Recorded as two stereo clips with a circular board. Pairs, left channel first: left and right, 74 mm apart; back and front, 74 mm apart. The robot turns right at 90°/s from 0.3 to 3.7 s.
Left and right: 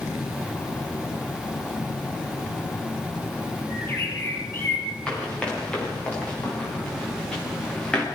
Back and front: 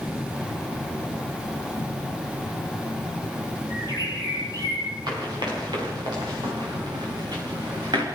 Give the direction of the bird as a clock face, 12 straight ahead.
11 o'clock.